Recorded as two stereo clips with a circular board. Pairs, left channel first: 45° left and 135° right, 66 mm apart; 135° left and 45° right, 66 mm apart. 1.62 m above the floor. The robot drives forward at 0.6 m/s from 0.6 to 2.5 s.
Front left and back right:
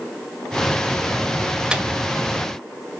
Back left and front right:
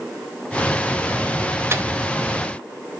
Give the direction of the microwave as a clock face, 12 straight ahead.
2 o'clock.